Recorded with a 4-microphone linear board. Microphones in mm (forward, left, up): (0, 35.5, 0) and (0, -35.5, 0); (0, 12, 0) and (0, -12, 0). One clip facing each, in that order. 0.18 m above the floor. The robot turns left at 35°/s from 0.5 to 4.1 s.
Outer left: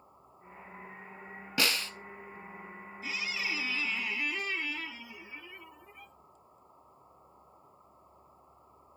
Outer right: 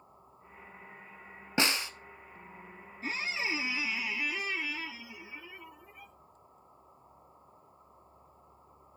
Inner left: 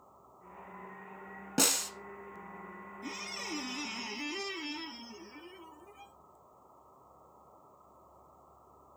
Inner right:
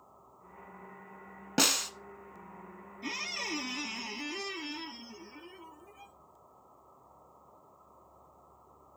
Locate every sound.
1.6 s a snare drum: 25° right (ahead or behind), 0.9 m; by 1.9 s 15° right (ahead or behind), 0.9 m
3.0 s a squeak: 140° right, 0.5 m; by 6.1 s 175° right, 0.5 m